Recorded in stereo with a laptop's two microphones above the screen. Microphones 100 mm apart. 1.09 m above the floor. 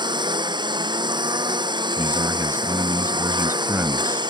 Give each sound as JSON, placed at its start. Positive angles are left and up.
{"t": 0.0, "sound": "a lawn mower", "side_deg": -50}
{"t": 2.0, "sound": "a man speaking", "side_deg": -25}